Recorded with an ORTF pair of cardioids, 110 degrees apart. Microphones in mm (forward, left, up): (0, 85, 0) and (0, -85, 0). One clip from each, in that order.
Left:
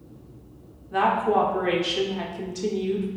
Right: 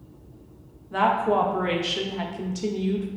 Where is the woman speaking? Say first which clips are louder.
Even; 10° right, 0.5 m.